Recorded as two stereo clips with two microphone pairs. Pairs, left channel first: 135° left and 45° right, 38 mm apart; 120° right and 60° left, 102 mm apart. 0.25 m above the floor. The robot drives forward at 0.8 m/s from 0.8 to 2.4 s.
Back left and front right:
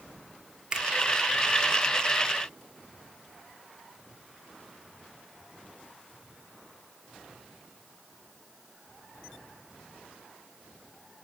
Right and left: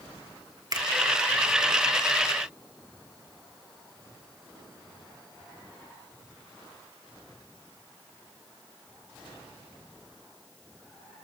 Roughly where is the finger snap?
Ahead.